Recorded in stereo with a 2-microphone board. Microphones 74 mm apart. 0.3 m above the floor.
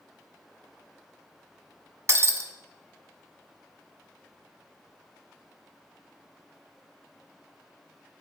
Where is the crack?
No crack in this recording.